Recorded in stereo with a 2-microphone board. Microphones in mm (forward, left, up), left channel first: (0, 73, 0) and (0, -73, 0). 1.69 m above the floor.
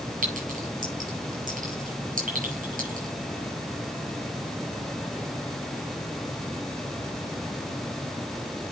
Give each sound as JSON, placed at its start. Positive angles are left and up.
{"t": 0.2, "sound": "a clink", "side_deg": -70, "distance_m": 6.0}